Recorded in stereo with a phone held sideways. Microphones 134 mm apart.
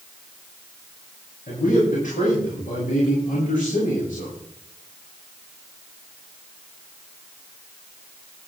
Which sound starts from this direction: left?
A man speaking, at 1.5 s.